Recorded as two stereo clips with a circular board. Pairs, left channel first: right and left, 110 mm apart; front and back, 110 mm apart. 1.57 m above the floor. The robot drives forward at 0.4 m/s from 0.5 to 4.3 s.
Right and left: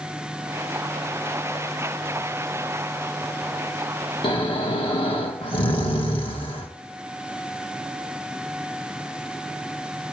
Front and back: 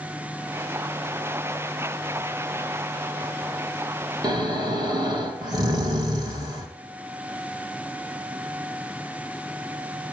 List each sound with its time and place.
4.2 s snoring: 130° right, 1.5 m